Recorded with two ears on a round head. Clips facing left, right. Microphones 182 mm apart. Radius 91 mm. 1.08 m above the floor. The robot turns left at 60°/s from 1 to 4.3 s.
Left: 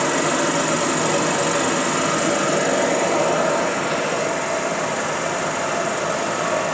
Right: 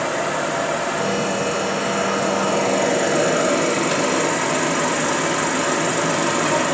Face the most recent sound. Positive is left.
turn(degrees=-85)